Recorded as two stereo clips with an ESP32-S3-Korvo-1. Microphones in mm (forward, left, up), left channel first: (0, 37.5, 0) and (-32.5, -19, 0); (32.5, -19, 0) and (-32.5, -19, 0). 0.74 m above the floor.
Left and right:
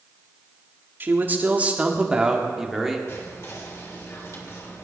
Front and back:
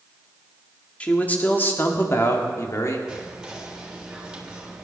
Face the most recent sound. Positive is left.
turn(degrees=100)